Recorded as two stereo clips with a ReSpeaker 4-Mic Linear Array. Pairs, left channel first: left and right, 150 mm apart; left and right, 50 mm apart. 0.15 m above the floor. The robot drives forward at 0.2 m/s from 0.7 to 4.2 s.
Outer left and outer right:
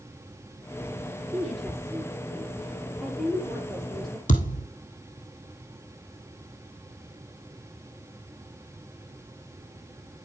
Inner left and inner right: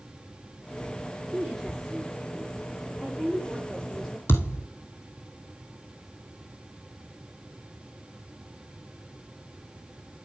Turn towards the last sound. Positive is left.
turn(degrees=65)  # may be behind; listen again after turning